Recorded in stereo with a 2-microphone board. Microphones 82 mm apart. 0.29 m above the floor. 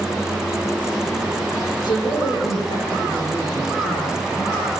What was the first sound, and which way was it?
A woman speaking, 65° left (ahead or behind).